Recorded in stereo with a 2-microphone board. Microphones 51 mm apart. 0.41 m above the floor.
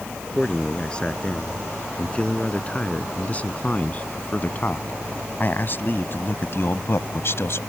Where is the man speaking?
20° left (ahead or behind); by 7.6 s 60° left (ahead or behind).